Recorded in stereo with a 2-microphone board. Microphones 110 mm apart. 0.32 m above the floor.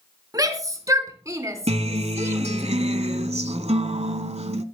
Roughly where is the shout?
Right.